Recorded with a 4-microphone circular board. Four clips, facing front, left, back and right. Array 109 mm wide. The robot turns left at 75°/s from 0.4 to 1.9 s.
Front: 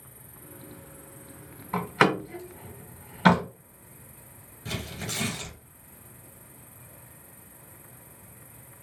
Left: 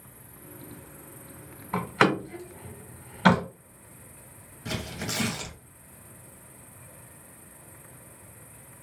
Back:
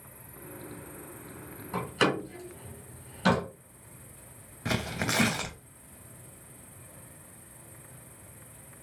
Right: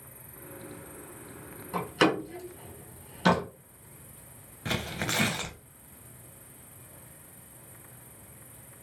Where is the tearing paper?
160° right, 0.5 m.